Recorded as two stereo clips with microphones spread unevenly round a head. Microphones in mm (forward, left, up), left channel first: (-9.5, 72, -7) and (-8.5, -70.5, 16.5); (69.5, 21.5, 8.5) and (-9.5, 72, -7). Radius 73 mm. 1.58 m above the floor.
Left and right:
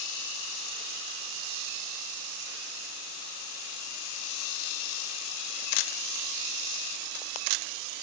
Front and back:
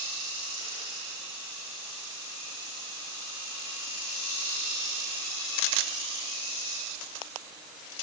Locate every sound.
Only background noise.